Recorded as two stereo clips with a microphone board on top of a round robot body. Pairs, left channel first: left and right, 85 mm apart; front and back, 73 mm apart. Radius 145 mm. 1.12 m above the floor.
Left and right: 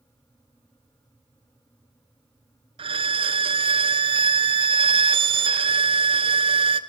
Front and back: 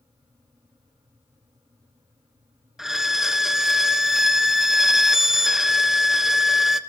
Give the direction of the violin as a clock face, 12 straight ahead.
3 o'clock.